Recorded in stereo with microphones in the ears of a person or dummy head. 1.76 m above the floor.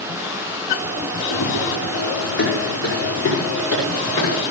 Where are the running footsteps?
60° left (ahead or behind), 4.5 m; by 4.4 s 75° left (ahead or behind), 7 m.